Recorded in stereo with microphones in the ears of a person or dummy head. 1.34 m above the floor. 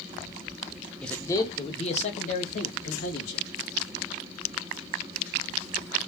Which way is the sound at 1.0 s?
Centre (ahead or behind).